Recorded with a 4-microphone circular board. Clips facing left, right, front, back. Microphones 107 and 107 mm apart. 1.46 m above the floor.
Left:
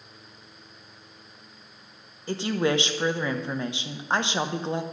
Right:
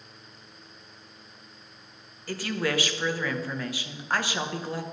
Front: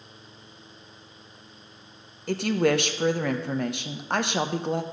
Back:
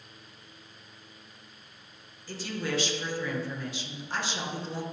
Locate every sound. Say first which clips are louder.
2.3 s a woman speaking: left 4 dB, front 11 dB; 25° left, 1.0 m